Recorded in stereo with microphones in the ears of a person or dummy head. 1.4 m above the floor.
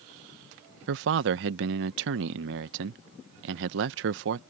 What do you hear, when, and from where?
0.9 s a man speaking: 65° right (ahead or behind)